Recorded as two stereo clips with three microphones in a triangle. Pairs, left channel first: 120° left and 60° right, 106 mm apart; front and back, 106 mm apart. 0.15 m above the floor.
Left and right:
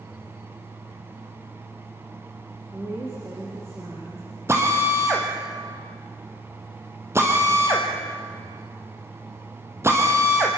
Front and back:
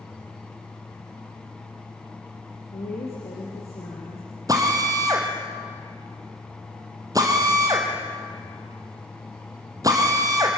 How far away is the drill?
About 3 m.